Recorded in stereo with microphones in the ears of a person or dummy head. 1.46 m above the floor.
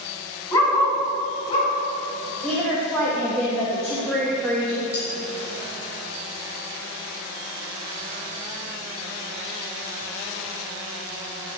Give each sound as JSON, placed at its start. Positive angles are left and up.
{"t": 0.5, "sound": "a dog barking", "side_deg": 20, "distance_m": 4.0}
{"t": 2.4, "sound": "a woman speaking", "side_deg": 5, "distance_m": 2.0}
{"t": 4.9, "sound": "cutlery clinking", "side_deg": 15, "distance_m": 3.5}